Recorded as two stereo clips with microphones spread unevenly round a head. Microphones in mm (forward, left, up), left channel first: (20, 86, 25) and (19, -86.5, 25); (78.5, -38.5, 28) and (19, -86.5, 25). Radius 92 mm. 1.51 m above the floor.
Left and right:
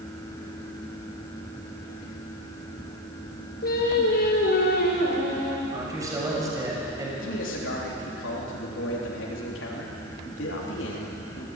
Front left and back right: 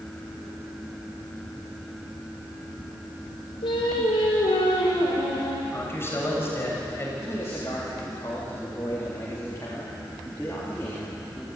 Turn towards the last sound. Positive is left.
turn(degrees=110)